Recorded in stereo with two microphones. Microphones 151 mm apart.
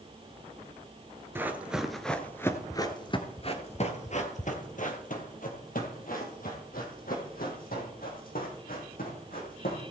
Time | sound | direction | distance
1.4 | running footsteps | 15° right (ahead or behind) | 1.3 m